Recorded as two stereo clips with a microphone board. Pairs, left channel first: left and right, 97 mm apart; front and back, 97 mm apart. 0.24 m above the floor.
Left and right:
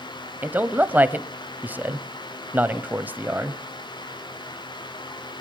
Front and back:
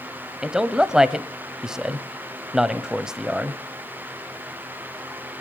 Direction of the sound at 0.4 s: 110° right.